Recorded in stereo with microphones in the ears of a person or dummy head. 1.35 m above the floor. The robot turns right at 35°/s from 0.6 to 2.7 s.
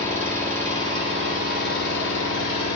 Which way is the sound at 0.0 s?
15° left.